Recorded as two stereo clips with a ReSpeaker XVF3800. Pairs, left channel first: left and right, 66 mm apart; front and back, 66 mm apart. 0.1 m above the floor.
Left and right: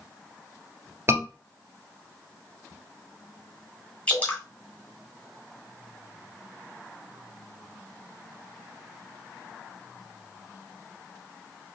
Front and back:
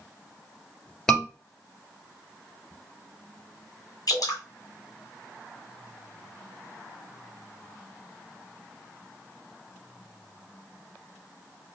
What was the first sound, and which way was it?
A scream, 75° right.